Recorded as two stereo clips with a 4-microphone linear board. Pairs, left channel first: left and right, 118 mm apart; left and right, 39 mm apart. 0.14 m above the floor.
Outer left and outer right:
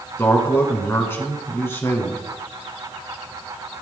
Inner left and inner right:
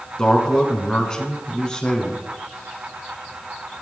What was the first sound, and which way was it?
A man speaking, 20° left (ahead or behind).